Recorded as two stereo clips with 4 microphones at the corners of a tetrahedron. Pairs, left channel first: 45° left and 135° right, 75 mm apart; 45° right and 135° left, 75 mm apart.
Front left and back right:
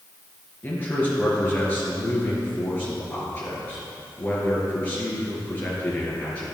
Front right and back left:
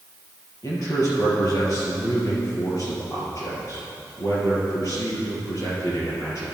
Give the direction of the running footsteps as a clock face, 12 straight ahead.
I don't hear running footsteps.